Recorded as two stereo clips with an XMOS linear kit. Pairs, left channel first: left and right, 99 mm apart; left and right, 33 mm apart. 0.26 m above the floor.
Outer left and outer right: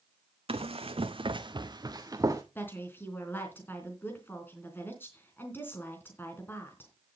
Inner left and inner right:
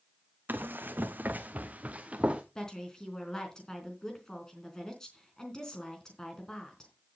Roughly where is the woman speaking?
Left.